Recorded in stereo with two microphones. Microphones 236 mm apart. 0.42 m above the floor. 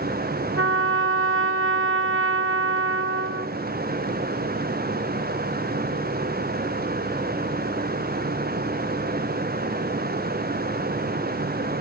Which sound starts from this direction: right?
A trumpet, at 0.6 s.